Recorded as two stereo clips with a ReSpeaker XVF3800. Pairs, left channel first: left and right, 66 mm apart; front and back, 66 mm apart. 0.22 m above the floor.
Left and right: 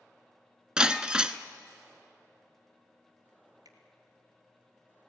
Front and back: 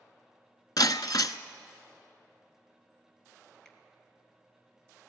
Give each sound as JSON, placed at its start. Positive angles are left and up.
{"t": 0.8, "sound": "breaking glass", "azimuth_deg": -10, "distance_m": 0.8}
{"t": 3.6, "sound": "a finger snap", "azimuth_deg": -85, "distance_m": 3.0}